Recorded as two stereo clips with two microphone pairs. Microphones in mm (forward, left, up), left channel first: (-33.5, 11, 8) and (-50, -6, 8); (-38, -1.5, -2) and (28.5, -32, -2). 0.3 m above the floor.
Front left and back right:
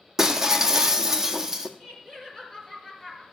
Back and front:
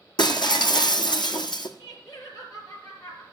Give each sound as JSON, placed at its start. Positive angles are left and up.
{"t": 0.2, "sound": "breaking glass", "azimuth_deg": 150, "distance_m": 1.1}
{"t": 1.8, "sound": "laughter", "azimuth_deg": 115, "distance_m": 4.5}